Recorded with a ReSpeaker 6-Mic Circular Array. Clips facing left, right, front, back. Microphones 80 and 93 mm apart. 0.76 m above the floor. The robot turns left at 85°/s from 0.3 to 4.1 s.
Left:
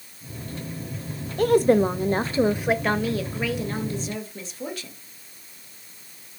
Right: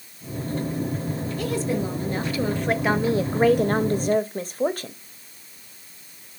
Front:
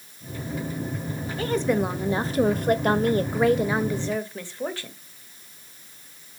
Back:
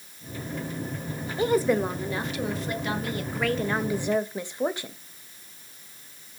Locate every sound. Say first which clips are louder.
1.4 s a woman speaking: left 10 dB, back 1 dB; 120° left, 0.7 m; by 4.9 s 115° right, 0.7 m